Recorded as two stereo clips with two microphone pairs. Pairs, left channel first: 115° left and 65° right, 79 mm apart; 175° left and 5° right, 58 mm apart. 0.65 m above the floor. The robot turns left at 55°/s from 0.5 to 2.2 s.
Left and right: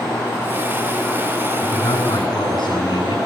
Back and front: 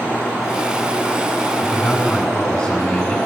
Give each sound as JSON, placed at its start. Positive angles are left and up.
{"t": 1.6, "sound": "a man speaking", "azimuth_deg": 140, "distance_m": 6.0}